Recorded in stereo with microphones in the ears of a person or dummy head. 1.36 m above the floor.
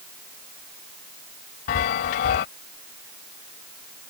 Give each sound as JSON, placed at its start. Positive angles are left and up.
{"t": 1.7, "sound": "a chime", "side_deg": 45}